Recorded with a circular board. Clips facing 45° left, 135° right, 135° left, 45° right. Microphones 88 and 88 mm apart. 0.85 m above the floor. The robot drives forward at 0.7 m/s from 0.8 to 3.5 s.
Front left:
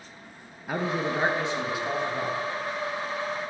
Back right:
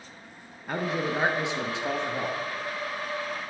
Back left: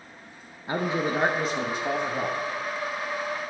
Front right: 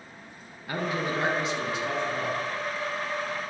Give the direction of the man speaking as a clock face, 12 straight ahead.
8 o'clock.